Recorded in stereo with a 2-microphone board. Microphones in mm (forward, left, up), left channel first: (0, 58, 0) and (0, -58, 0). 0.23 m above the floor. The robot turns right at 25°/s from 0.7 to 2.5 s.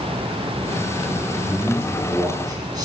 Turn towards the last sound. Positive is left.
turn(degrees=-35)  # may be behind; listen again after turning